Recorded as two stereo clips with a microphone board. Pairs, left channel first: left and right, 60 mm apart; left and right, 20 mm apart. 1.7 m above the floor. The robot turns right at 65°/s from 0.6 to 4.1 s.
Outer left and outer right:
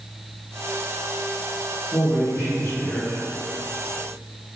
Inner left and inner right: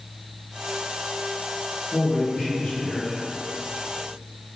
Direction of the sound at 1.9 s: 55° left.